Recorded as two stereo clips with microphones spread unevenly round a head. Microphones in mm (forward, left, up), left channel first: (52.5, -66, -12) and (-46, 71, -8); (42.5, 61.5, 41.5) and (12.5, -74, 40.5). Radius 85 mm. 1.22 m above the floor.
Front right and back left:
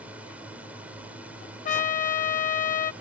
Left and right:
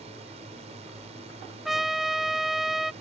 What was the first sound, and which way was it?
A drone, 150° right.